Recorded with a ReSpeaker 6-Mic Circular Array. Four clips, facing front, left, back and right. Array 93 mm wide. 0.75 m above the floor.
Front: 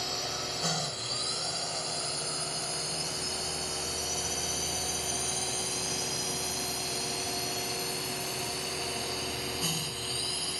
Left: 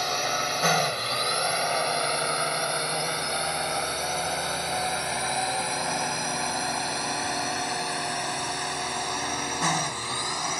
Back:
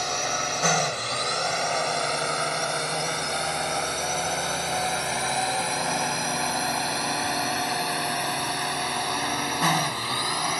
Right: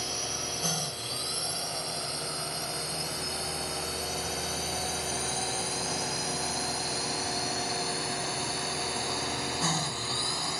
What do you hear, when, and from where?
0.0 s a drone: 130° left; by 10.6 s 160° left